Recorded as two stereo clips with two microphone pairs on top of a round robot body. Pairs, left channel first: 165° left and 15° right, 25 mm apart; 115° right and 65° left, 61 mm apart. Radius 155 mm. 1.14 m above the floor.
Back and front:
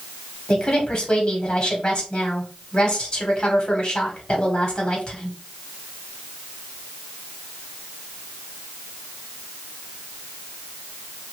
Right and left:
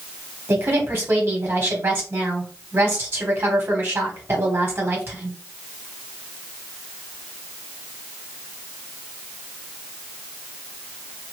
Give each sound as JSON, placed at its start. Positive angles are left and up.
{"t": 0.5, "sound": "a woman speaking", "azimuth_deg": 125, "distance_m": 1.3}